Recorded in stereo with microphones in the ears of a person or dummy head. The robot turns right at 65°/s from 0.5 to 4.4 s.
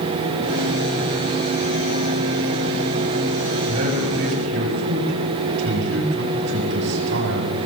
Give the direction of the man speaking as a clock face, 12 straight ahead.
5 o'clock.